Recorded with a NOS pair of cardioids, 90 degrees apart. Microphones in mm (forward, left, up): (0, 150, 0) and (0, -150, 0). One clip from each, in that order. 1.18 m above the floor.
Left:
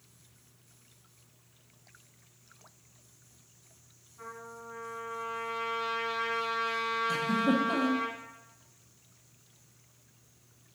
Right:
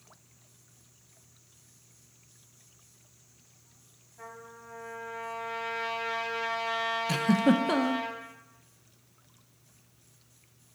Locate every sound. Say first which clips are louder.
4.2 s a trumpet: left 2 dB; 20° right, 2 m
7.1 s a giggle: right 4 dB; 60° right, 0.6 m